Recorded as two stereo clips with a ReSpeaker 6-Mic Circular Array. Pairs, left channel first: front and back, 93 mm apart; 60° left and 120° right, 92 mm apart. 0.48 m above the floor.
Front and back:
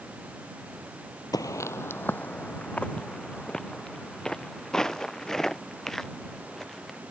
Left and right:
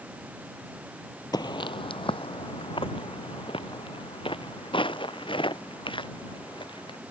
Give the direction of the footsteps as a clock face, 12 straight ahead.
11 o'clock.